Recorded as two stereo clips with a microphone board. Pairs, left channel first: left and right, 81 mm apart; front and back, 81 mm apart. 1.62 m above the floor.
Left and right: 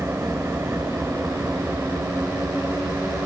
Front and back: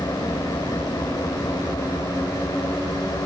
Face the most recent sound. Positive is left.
turn(degrees=-35)